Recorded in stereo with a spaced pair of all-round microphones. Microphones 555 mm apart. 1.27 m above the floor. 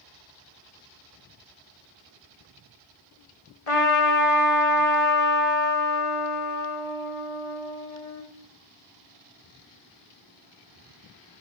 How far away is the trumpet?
About 1.4 m.